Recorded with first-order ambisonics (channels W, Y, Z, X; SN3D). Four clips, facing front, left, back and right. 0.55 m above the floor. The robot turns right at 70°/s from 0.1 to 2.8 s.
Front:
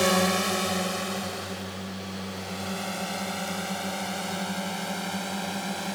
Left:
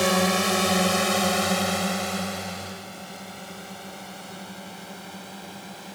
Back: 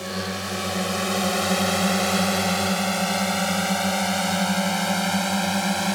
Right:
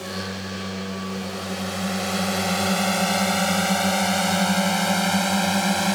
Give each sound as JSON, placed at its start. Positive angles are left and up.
{"t": 0.0, "sound": "a drone", "azimuth_deg": 50}